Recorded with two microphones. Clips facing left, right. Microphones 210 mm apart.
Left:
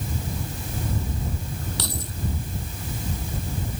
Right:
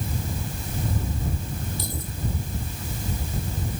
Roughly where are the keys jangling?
Left.